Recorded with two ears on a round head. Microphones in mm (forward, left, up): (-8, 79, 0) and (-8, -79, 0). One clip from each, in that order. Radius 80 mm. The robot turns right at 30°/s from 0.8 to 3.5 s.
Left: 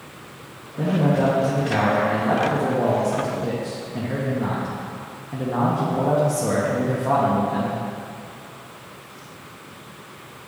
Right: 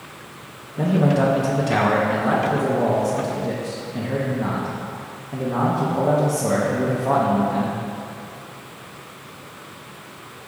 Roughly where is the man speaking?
Right.